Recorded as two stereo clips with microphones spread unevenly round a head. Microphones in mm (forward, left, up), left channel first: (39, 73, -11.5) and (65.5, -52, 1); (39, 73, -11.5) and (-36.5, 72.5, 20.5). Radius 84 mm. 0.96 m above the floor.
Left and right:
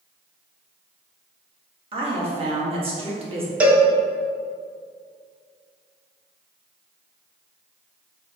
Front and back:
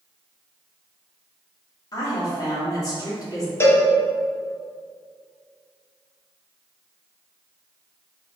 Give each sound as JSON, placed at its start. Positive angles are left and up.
{"t": 1.9, "sound": "a woman speaking", "azimuth_deg": -35, "distance_m": 1.8}
{"t": 3.6, "sound": "a cowbell", "azimuth_deg": 5, "distance_m": 1.1}